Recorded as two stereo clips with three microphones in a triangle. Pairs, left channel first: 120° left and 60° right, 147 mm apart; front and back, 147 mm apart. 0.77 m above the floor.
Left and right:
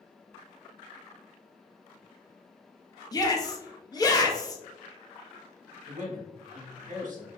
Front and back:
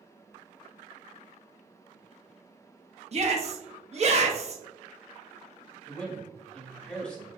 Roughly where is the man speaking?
Right.